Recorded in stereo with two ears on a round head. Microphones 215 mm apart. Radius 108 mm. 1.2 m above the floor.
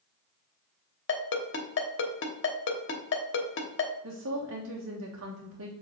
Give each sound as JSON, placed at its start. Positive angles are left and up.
{"t": 1.1, "sound": "a ringtone", "side_deg": 50, "distance_m": 1.2}
{"t": 4.0, "sound": "a woman speaking", "side_deg": -65, "distance_m": 1.2}